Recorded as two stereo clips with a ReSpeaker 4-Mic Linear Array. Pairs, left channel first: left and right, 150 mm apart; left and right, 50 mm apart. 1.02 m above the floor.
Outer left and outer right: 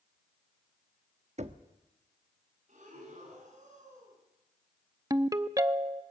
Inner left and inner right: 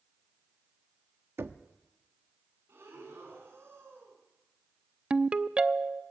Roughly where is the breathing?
Right.